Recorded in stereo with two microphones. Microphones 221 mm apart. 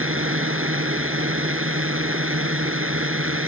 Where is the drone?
70° right (ahead or behind).